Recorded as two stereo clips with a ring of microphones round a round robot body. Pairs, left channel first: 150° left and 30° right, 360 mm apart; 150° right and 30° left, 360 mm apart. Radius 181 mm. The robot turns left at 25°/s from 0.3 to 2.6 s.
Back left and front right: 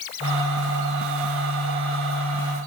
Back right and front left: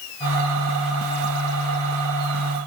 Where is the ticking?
I don't hear ticking.